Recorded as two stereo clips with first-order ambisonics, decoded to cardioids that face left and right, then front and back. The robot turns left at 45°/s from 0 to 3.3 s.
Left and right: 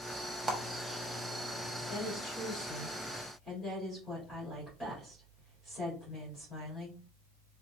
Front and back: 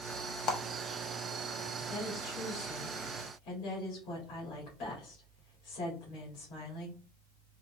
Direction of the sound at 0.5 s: 5° left.